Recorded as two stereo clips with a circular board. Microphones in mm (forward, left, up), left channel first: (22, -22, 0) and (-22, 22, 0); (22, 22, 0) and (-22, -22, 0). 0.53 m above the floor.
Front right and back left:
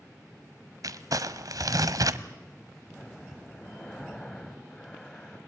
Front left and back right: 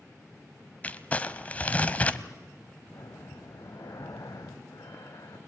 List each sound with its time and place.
0.8 s crumpling: 115° left, 1.0 m
2.9 s breathing: 35° left, 2.5 m